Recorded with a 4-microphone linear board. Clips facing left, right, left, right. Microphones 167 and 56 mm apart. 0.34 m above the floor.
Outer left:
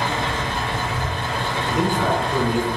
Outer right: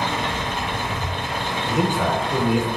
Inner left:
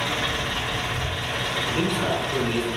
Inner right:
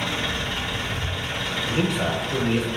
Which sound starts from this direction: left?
An engine running, at 0.0 s.